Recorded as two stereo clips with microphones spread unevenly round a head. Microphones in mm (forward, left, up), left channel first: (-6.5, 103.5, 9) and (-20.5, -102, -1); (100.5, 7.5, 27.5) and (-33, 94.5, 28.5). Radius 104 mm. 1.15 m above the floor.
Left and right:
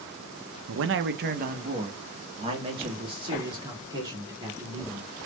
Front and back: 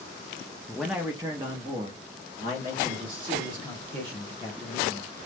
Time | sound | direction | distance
0.7 | a man speaking | 115° right | 0.6 m